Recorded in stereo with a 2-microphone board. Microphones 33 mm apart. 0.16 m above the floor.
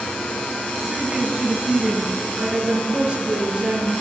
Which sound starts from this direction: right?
A woman speaking, at 0.9 s.